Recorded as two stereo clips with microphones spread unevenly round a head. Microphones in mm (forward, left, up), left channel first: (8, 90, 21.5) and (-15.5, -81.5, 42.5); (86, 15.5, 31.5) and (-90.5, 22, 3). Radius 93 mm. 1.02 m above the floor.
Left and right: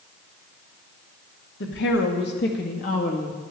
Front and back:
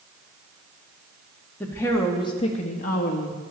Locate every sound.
1.6 s a woman speaking: 80° left, 1.7 m; by 3.4 s 25° left, 1.3 m